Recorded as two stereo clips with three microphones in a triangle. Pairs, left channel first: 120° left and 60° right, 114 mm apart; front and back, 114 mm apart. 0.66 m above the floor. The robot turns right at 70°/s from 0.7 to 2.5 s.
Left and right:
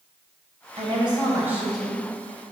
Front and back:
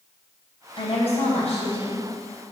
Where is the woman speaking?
40° right, 3.5 m; by 2.0 s 50° left, 3.5 m.